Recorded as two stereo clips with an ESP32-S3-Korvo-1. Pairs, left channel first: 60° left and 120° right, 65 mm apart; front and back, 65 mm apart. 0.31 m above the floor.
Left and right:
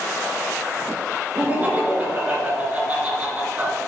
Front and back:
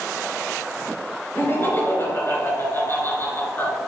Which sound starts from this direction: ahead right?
Laughter, at 1.4 s.